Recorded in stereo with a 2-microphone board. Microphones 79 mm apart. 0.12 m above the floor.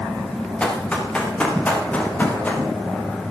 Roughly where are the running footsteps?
Centre.